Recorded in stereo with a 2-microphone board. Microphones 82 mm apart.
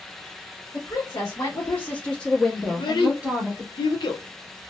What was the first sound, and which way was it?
A woman speaking, 50° left (ahead or behind).